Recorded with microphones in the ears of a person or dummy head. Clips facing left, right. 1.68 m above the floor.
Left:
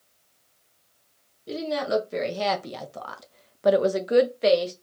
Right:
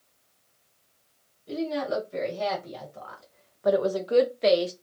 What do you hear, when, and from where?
1.5 s a woman speaking: 75° left (ahead or behind), 1.5 m; by 4.7 s 5° right (ahead or behind), 0.8 m